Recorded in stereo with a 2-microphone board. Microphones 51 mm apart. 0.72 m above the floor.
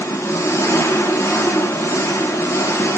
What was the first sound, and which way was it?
An engine running, 80° left.